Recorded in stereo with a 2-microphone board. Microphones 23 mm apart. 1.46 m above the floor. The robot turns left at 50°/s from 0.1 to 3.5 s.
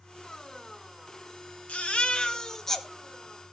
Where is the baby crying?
65° left, 1.8 m; by 2.9 s 5° left, 1.8 m.